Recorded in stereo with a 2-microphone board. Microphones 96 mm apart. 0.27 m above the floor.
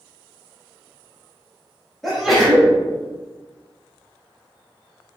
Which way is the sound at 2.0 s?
Centre (ahead or behind).